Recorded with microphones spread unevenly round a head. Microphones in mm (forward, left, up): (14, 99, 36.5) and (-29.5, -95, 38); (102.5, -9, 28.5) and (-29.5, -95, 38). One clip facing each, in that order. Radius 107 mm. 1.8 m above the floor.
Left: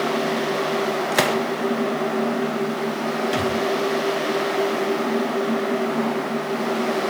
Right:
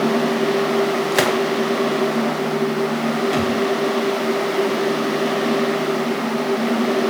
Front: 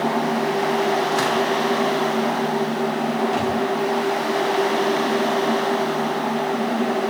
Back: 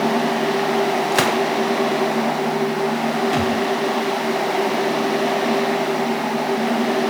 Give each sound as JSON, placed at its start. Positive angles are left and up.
{"t": 1.1, "sound": "a gunshot", "azimuth_deg": 170, "distance_m": 1.6}
{"t": 3.3, "sound": "a thud", "azimuth_deg": 165, "distance_m": 4.5}